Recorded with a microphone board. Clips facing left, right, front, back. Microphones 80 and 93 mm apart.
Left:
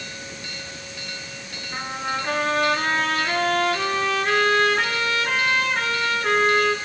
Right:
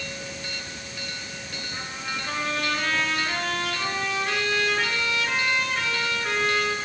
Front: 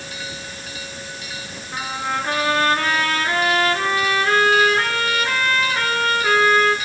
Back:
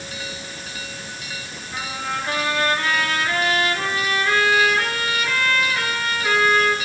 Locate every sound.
1.7 s a trumpet: 50° left, 4.5 m